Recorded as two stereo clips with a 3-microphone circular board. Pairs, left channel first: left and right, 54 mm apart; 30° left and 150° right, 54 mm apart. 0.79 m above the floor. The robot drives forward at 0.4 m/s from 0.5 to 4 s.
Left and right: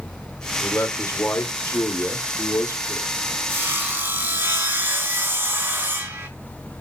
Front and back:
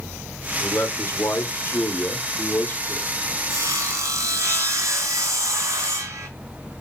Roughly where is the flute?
No flute in this recording.